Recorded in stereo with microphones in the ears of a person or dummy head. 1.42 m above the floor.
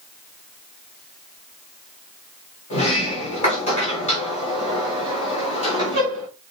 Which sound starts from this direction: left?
A sliding door, at 2.7 s.